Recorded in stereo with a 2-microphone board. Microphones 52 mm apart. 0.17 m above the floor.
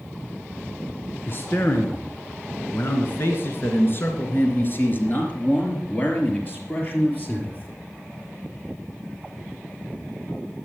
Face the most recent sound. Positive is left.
turn(degrees=30)  # may be behind; listen again after turning